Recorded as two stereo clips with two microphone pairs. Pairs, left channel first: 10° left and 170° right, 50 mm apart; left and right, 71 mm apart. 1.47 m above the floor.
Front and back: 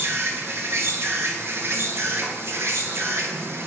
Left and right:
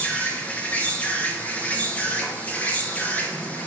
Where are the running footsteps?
No running footsteps in this recording.